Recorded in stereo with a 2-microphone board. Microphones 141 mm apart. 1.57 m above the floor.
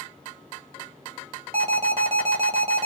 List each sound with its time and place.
1.5 s an alarm: 45° right (ahead or behind), 0.7 m